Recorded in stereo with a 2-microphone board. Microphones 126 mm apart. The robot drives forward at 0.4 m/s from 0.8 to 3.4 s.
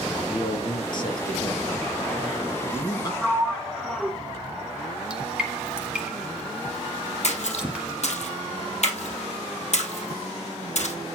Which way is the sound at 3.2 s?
5° left (ahead or behind).